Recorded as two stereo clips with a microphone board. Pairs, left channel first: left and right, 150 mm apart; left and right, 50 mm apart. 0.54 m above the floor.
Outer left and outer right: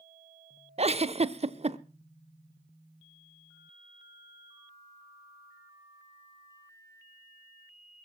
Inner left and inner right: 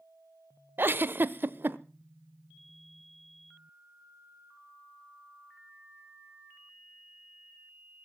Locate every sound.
0.8 s a giggle: 45° right (ahead or behind), 0.7 m